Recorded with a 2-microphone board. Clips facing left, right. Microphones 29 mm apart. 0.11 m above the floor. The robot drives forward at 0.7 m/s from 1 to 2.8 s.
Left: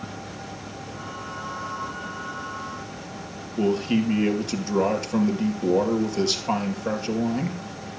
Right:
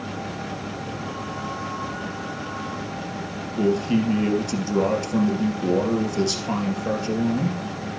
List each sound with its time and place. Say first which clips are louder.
3.6 s a man speaking: right 1 dB; 15° left (ahead or behind), 3 m